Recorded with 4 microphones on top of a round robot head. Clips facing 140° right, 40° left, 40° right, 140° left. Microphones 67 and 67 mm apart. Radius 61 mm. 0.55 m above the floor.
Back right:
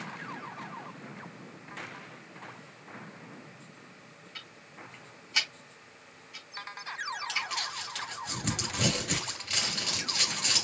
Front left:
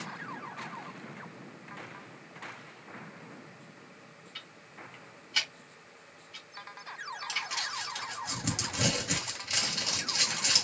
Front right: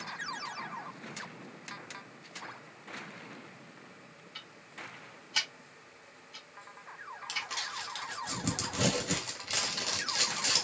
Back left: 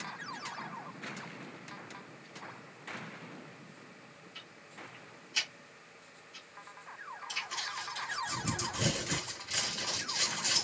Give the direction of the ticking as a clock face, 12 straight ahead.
2 o'clock.